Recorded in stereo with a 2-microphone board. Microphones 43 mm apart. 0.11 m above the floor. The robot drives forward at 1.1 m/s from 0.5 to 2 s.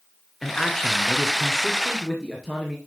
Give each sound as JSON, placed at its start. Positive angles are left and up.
{"t": 0.4, "sound": "a man speaking", "side_deg": 10, "distance_m": 1.2}